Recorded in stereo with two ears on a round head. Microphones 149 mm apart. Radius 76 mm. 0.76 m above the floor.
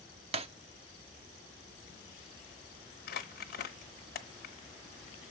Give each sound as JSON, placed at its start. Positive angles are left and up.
{"t": 0.3, "sound": "breaking glass", "side_deg": -35, "distance_m": 0.6}
{"t": 3.1, "sound": "crumpling", "side_deg": 60, "distance_m": 1.1}